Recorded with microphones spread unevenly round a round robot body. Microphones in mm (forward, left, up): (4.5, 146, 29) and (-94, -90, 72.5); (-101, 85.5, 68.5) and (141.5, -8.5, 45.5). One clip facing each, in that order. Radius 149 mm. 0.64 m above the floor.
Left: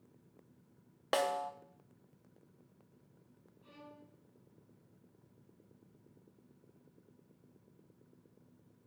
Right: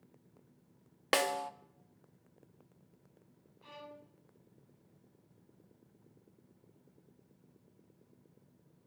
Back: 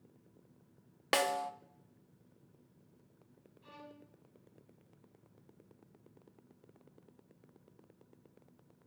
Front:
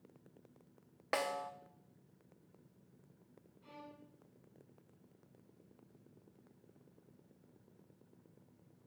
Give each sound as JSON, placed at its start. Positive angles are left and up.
{"t": 1.1, "sound": "a snare drum", "azimuth_deg": -165, "distance_m": 0.8}
{"t": 3.6, "sound": "a violin", "azimuth_deg": -125, "distance_m": 2.0}